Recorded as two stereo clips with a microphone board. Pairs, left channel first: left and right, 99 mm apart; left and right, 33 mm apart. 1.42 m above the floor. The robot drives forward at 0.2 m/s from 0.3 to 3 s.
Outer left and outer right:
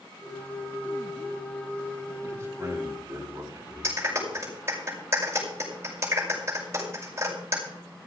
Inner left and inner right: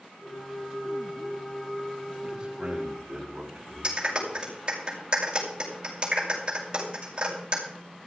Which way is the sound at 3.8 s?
25° right (ahead or behind).